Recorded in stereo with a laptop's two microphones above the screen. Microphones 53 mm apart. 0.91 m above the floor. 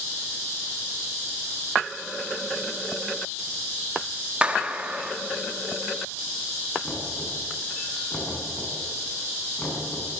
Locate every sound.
4.4 s a clap: 25° right (ahead or behind), 1.5 m
6.8 s knocking: 30° left (ahead or behind), 8 m